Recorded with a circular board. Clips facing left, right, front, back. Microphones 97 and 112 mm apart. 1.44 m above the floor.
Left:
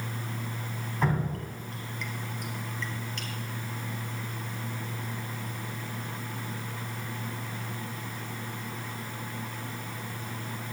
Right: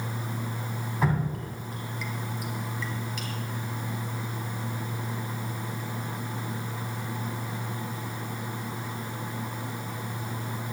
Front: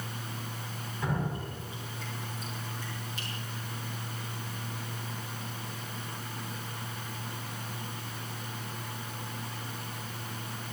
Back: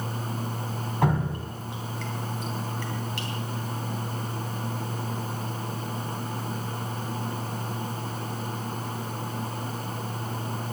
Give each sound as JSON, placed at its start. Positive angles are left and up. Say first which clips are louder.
{"t": 1.0, "sound": "dripping", "louder": "right 1 dB, back 7 dB", "azimuth_deg": -175, "distance_m": 4.0}